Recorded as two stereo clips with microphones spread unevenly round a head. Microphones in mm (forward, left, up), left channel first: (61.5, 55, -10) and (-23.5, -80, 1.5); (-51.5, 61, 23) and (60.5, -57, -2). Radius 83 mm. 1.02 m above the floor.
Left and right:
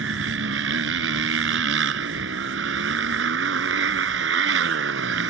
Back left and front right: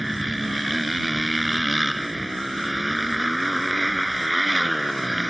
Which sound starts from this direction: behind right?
A motorcycle, at 0.0 s.